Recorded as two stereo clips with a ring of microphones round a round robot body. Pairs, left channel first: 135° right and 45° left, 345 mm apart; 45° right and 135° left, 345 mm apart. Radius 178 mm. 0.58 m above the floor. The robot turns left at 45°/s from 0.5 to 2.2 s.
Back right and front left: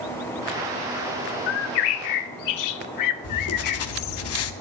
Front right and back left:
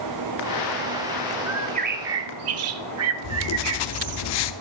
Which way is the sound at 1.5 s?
140° right.